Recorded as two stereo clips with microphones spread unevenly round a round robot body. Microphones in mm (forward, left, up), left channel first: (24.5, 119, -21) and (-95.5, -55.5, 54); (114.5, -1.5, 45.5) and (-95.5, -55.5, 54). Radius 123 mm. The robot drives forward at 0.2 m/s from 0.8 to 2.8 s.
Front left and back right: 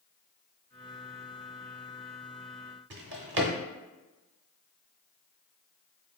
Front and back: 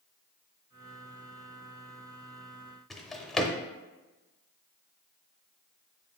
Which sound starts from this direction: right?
A drawer, at 2.9 s.